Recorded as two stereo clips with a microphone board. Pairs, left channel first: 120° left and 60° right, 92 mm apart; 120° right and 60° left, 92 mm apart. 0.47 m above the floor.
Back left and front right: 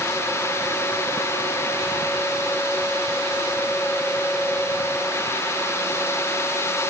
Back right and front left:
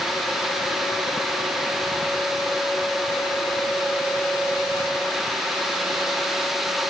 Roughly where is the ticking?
No ticking in this recording.